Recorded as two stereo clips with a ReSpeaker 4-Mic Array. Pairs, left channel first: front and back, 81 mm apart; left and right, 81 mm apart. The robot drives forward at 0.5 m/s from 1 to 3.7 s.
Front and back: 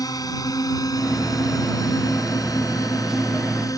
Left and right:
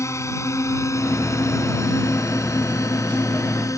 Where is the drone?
40° left; by 3.8 s 45° left.